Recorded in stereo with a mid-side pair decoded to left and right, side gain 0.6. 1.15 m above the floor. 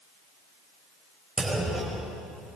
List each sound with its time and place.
1.4 s a clunk: straight ahead, 5 m